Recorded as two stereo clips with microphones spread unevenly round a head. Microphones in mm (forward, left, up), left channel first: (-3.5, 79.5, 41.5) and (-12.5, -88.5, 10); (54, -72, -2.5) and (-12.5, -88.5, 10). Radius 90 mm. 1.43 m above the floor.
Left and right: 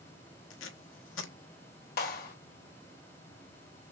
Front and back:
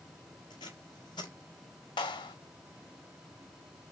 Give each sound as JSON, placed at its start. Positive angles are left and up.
{"t": 0.5, "sound": "tape being pulled", "azimuth_deg": 70, "distance_m": 1.0}
{"t": 2.0, "sound": "a clap", "azimuth_deg": 45, "distance_m": 1.4}